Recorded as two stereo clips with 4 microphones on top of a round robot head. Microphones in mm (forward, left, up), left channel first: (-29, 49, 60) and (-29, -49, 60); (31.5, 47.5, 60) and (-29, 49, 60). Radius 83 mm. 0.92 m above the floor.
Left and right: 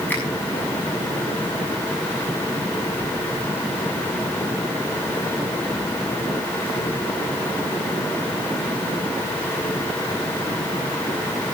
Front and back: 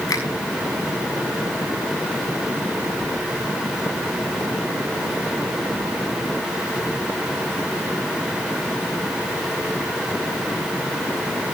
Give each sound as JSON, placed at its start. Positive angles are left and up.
{"t": 0.1, "sound": "a finger snap", "azimuth_deg": 15, "distance_m": 6.5}